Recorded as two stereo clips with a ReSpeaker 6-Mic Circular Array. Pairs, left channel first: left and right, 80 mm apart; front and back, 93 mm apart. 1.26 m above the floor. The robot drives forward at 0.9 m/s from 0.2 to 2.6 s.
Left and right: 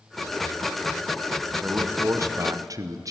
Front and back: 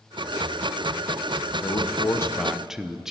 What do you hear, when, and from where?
1.6 s a man speaking: 25° right, 1.0 m; by 3.1 s 95° right, 0.6 m